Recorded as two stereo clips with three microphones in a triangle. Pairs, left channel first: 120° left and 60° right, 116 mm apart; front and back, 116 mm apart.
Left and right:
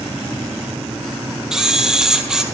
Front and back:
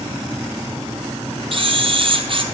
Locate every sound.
1.5 s a camera shutter: 145° right, 1.5 m